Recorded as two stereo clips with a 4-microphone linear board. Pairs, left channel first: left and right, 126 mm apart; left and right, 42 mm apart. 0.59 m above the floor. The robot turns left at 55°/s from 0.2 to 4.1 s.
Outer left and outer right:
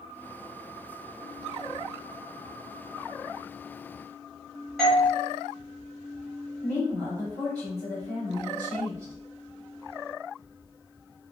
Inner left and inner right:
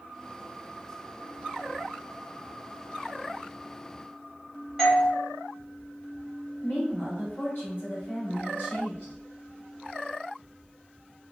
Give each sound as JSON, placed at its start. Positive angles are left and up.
{"t": 4.8, "sound": "a doorbell", "side_deg": 0, "distance_m": 1.1}
{"t": 6.6, "sound": "a woman speaking", "side_deg": 55, "distance_m": 1.8}